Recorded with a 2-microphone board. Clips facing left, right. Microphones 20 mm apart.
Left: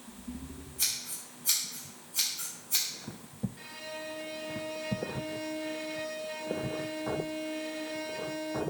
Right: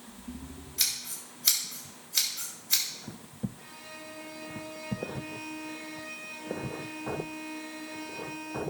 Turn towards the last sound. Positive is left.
turn(degrees=55)  # may be behind; listen again after turning